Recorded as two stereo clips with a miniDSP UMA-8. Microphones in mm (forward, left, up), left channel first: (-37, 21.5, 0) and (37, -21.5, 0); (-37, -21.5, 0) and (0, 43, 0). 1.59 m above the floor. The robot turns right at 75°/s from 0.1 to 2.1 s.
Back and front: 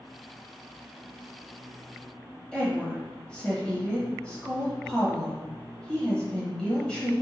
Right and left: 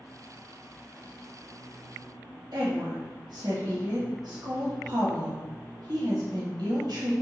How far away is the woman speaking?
About 1.1 m.